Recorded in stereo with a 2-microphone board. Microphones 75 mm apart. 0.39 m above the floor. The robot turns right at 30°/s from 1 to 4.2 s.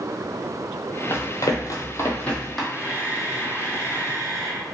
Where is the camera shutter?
150° right, 1.0 m; by 4.6 s 105° right, 1.0 m.